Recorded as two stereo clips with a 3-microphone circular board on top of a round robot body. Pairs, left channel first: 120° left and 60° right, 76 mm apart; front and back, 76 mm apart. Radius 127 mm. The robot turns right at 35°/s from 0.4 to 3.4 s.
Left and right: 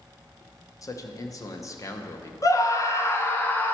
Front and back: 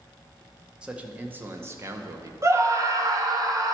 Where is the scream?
140° left, 1.3 m; by 3.8 s 175° left, 1.3 m.